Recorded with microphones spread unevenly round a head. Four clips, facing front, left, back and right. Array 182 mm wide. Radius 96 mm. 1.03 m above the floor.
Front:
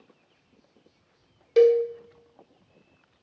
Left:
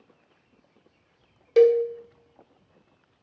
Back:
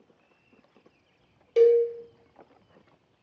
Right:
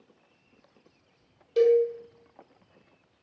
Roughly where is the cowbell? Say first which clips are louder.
Left 3 dB, front 1 dB; left.